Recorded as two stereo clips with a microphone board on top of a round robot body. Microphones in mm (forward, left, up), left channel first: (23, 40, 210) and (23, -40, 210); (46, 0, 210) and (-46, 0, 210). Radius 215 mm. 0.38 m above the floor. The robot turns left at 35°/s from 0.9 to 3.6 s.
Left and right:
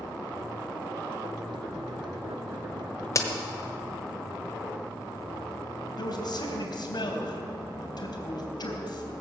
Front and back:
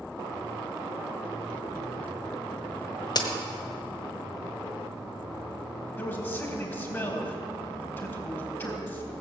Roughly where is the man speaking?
Ahead left.